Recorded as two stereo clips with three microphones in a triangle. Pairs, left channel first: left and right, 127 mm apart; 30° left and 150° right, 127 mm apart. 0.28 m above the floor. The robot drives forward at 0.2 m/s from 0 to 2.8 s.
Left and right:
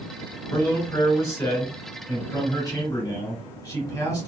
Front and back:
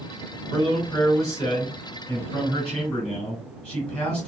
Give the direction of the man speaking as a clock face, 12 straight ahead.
10 o'clock.